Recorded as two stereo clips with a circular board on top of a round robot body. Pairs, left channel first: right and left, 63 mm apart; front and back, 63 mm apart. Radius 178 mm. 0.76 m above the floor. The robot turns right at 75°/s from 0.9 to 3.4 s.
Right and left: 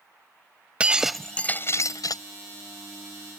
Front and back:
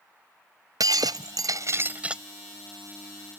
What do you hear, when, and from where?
0.8 s breaking glass: 160° left; by 2.2 s 100° right